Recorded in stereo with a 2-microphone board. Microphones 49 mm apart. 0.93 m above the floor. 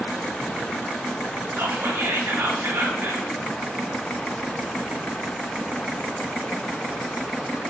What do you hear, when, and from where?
1.6 s whispering: 70° right (ahead or behind), 2.5 m